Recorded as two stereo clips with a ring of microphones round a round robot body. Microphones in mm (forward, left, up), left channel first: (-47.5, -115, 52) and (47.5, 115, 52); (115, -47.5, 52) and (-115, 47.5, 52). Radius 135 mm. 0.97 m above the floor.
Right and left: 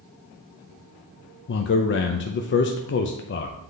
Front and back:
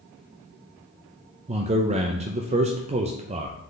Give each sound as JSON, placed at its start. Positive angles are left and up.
{"t": 1.5, "sound": "a man speaking", "azimuth_deg": -145, "distance_m": 0.5}